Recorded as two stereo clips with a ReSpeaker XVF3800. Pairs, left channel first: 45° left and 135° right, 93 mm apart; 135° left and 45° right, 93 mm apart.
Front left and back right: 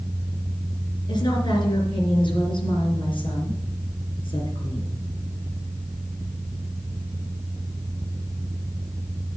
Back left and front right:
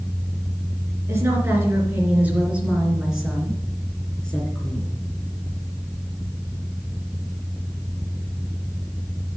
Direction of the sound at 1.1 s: 15° left.